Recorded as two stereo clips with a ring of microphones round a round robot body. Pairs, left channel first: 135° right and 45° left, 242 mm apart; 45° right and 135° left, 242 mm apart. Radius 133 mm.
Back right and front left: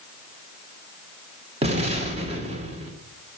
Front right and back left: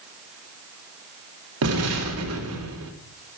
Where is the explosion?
110° left, 2.5 m.